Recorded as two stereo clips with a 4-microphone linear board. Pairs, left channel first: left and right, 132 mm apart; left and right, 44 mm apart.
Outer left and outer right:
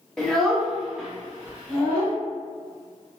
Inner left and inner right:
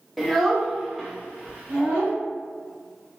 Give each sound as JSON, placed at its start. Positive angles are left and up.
{"t": 0.2, "sound": "a child speaking", "side_deg": 5, "distance_m": 0.6}